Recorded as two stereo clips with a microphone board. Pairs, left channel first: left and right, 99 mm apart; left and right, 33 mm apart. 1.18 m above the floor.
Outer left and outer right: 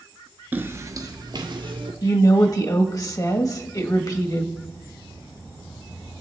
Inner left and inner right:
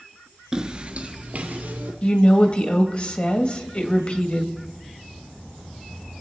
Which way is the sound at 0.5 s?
20° right (ahead or behind).